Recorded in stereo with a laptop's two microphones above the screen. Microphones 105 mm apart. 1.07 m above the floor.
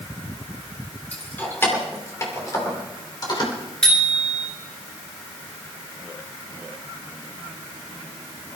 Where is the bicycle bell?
5° left (ahead or behind), 2.5 m.